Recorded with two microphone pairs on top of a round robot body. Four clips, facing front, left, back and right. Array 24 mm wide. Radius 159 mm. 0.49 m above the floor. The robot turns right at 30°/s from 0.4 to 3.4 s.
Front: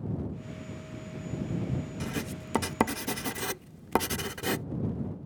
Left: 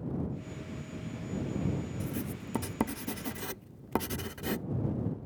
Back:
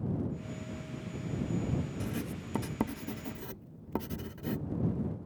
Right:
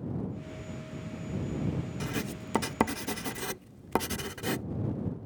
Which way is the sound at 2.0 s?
60° right.